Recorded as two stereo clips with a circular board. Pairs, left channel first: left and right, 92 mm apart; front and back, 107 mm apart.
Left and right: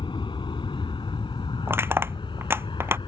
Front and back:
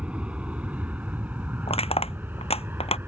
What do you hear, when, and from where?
0.0 s an aircraft: 100° left; by 3.1 s 110° left
1.7 s crushing: 25° right